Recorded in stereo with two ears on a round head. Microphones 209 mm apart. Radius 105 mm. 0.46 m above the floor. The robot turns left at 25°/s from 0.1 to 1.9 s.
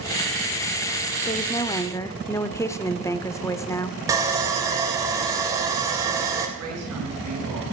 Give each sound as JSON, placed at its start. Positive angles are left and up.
{"t": 1.2, "sound": "a woman speaking", "side_deg": 25, "distance_m": 0.9}
{"t": 4.1, "sound": "sawing", "side_deg": -15, "distance_m": 2.5}
{"t": 6.6, "sound": "a woman speaking", "side_deg": -70, "distance_m": 7.0}